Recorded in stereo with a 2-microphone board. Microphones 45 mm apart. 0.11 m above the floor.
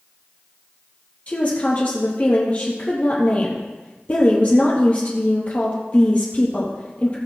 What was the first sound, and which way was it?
A woman speaking, 35° left (ahead or behind).